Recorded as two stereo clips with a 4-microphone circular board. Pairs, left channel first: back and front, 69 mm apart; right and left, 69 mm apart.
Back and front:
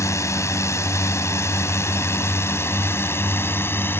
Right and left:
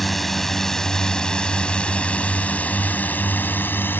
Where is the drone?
175° right; by 4.0 s 135° right.